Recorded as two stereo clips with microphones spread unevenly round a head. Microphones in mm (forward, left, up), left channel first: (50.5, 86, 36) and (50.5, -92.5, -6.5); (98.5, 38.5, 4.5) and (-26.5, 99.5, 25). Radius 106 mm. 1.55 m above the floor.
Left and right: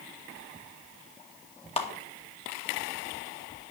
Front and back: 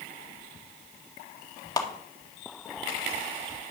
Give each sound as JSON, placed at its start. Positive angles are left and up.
{"t": 1.8, "sound": "a clap", "azimuth_deg": 40, "distance_m": 2.0}